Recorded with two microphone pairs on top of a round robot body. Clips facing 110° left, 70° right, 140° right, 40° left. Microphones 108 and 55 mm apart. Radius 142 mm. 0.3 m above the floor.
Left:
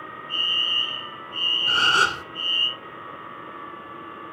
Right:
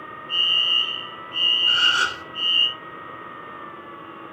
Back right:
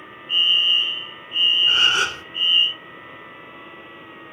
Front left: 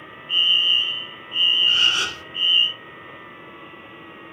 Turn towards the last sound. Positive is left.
turn(degrees=155)